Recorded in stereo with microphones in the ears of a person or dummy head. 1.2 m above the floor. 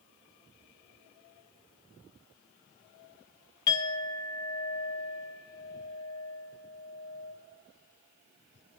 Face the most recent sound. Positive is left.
turn(degrees=15)  # may be behind; listen again after turning